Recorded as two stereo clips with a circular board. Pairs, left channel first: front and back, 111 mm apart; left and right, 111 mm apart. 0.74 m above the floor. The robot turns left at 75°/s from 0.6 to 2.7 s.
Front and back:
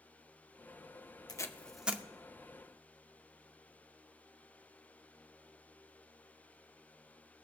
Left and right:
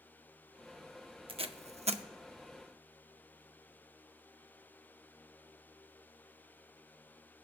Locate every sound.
1.3 s tape being pulled: 55° right, 0.5 m; by 2.0 s 110° right, 0.5 m